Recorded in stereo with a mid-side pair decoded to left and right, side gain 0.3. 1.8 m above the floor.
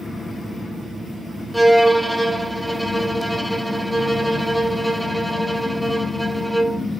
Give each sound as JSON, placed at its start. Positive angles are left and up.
{"t": 1.5, "sound": "a violin", "azimuth_deg": -5, "distance_m": 0.7}